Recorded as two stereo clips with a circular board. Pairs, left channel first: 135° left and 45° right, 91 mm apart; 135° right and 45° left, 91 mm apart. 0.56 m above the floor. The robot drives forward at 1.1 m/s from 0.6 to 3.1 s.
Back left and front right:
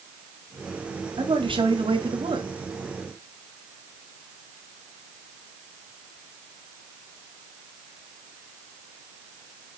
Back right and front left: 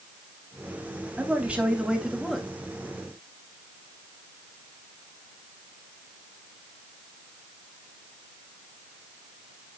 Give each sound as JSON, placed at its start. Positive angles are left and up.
{"t": 1.2, "sound": "a man speaking", "azimuth_deg": -30, "distance_m": 3.5}